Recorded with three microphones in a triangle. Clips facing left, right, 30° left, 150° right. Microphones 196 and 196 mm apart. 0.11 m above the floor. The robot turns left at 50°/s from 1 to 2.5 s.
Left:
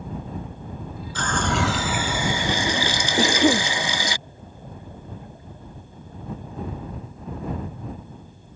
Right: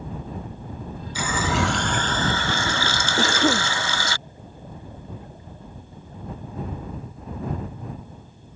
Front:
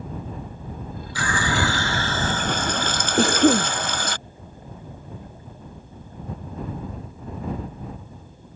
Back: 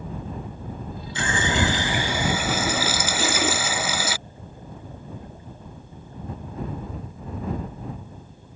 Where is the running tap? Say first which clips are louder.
Even, back 1 dB; 155° right; by 4.2 s 135° left.